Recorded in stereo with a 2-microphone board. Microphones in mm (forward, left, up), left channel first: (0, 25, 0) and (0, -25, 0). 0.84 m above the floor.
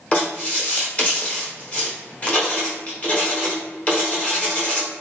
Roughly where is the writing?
Left.